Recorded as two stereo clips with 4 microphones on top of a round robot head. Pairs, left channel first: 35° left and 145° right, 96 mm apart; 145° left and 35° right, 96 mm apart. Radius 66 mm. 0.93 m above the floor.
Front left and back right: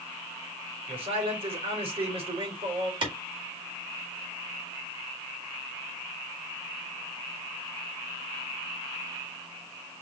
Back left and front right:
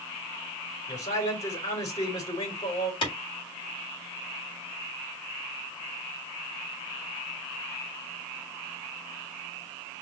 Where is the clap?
Straight behind, 2 m.